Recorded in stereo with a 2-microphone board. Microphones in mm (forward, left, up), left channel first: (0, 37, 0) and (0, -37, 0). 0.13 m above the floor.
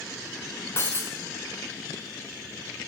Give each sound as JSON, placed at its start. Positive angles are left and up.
{"t": 0.8, "sound": "breaking glass", "side_deg": 35, "distance_m": 2.5}